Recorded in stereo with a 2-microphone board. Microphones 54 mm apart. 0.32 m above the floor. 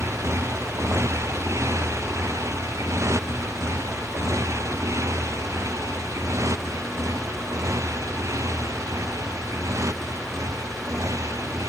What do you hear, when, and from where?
0.0 s a motorcycle: 60° right (ahead or behind); by 11.7 s 70° right (ahead or behind)